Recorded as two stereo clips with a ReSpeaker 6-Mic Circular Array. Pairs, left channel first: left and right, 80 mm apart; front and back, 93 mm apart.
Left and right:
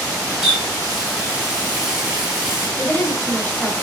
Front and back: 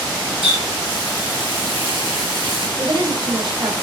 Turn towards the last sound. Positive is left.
turn(degrees=155)